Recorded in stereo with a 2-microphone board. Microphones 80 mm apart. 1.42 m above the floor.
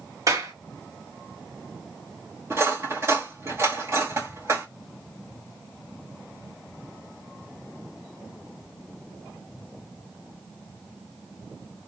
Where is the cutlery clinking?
35° right (ahead or behind), 1.8 m.